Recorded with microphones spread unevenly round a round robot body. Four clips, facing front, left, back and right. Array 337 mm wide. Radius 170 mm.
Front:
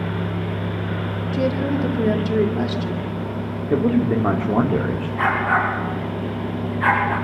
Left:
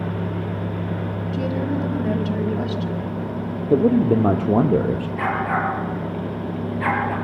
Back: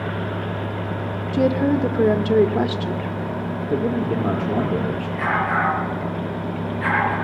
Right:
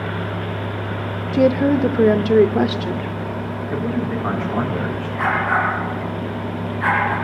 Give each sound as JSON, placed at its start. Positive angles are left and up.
{"t": 1.3, "sound": "a woman speaking", "azimuth_deg": -110, "distance_m": 2.5}
{"t": 3.7, "sound": "a man speaking", "azimuth_deg": 80, "distance_m": 2.0}
{"t": 5.2, "sound": "a dog barking", "azimuth_deg": 80, "distance_m": 5.5}